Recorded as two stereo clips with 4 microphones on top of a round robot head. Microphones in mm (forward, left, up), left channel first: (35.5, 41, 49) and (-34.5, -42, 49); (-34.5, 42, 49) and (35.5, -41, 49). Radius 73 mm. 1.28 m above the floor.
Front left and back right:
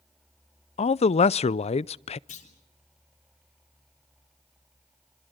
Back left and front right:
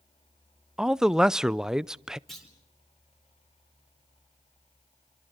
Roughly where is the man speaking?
Ahead left.